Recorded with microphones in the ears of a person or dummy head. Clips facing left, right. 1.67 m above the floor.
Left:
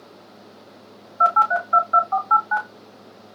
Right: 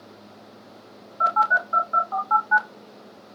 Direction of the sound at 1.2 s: 40° left (ahead or behind).